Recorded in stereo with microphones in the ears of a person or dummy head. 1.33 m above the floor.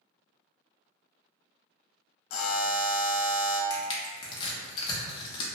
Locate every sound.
2.3 s a buzzer: 65° left (ahead or behind), 0.5 m
3.7 s crushing: 30° left (ahead or behind), 0.6 m